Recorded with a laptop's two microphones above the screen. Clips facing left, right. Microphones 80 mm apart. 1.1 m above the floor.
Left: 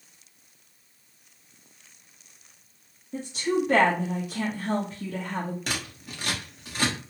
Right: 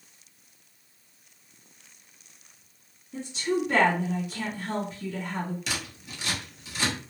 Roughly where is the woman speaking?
Left.